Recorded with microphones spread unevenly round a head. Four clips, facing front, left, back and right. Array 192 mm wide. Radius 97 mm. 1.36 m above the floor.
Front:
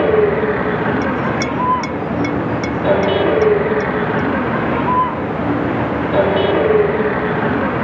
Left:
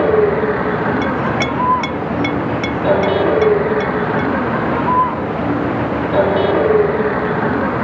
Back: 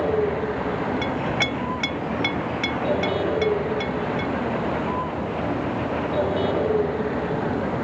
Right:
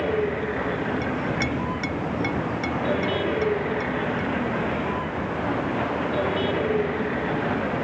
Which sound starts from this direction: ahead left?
A vehicle, at 0.0 s.